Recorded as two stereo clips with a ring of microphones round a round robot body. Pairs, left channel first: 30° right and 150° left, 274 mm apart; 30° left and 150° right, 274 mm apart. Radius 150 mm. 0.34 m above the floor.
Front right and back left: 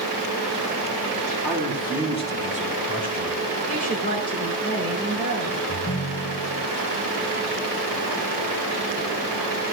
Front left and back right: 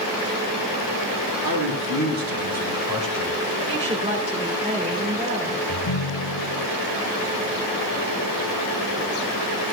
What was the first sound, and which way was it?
A man speaking, 110° right.